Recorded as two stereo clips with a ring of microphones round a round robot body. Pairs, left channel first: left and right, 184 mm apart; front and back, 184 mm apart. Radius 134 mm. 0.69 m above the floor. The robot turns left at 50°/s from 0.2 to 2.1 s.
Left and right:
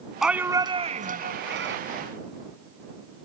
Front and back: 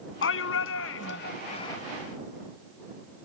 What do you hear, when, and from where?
0.2 s a shout: straight ahead; by 1.8 s 80° right